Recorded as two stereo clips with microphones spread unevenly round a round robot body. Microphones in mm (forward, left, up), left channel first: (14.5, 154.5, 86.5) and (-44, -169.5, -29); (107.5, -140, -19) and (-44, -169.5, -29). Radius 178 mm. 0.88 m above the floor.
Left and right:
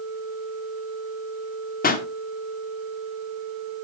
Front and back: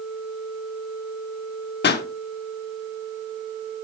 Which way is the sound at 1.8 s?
15° left.